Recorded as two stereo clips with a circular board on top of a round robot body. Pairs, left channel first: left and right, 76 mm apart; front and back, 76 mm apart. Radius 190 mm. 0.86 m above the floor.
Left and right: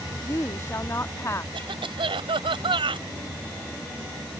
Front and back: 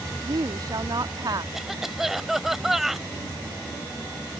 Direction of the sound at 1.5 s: 95° right.